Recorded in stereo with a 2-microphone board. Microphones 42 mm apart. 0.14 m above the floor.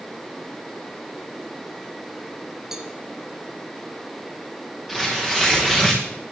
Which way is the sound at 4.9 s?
5° right (ahead or behind).